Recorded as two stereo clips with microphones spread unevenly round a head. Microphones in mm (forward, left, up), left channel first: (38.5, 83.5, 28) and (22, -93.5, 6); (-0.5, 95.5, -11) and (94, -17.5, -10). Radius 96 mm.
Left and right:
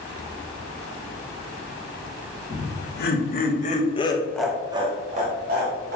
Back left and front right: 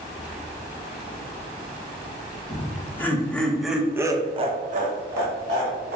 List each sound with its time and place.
2.5 s laughter: 60° left, 1.5 m; by 6.0 s 80° right, 1.3 m